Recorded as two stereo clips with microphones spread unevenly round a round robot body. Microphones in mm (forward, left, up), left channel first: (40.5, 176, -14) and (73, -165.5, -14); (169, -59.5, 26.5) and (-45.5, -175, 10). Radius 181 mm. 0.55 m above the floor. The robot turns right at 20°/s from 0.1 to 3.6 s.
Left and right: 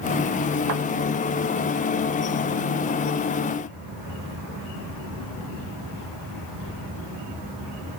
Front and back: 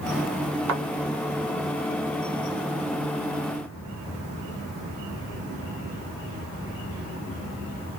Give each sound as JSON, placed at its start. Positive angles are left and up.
{"t": 0.7, "sound": "a thud", "azimuth_deg": -130, "distance_m": 1.4}